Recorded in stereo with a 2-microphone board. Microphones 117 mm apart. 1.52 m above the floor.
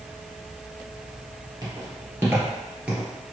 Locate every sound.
1.6 s footsteps: 30° right (ahead or behind), 1.8 m; by 3.1 s 5° right (ahead or behind), 1.4 m